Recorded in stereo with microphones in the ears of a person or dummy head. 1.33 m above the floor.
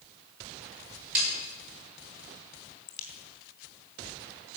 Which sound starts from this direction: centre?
A snare drum, at 1.1 s.